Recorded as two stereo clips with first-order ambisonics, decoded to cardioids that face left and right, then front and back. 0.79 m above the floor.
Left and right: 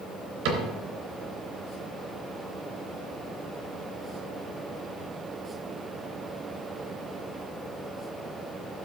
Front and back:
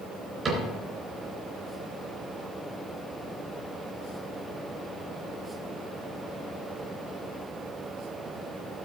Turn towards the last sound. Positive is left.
turn(degrees=-105)